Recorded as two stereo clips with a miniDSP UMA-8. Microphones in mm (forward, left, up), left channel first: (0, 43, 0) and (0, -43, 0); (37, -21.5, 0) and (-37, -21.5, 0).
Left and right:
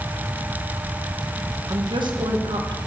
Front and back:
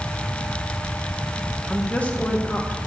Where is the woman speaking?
75° right, 1.5 m.